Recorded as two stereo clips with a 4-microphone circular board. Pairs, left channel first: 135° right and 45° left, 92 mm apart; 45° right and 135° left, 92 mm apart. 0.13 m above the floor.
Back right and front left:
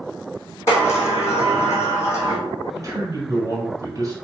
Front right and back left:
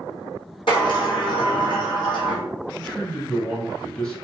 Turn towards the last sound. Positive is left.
turn(degrees=35)